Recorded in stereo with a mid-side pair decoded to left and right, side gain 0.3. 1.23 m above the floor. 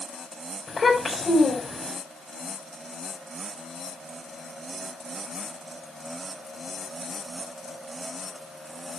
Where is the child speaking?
40° left, 4.5 m.